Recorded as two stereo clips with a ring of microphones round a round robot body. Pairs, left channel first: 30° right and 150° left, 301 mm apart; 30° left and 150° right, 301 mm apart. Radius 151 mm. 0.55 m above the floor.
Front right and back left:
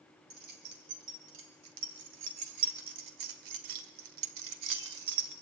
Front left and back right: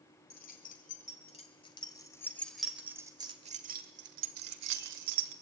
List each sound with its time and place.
0.3 s keys jangling: 90° left, 3 m; by 5.3 s 175° right, 1.9 m